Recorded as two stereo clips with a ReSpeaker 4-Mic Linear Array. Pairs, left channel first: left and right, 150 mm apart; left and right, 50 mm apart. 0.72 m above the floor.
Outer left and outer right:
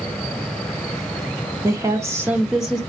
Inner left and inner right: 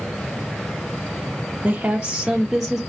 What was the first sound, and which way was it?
A woman speaking, 25° right (ahead or behind).